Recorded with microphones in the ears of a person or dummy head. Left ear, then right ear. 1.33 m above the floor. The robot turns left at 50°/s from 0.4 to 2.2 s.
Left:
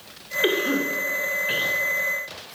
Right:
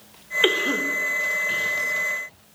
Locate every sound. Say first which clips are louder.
0.4 s a cough: right 1 dB; 35° right (ahead or behind), 1.5 m; by 1.8 s 30° left (ahead or behind), 1.5 m